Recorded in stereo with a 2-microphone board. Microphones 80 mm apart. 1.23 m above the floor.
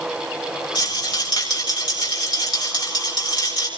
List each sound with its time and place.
0.8 s a rattle: 60° left (ahead or behind), 7.5 m